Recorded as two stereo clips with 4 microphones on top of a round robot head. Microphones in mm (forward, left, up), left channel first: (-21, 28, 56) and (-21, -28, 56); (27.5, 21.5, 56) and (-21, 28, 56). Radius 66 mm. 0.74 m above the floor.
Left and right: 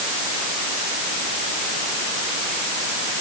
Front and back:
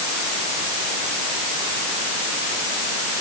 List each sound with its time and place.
Only background noise.